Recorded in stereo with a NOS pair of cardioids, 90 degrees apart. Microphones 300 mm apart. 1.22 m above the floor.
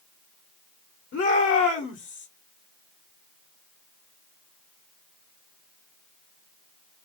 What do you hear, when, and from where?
1.1 s a shout: 50° left, 1.2 m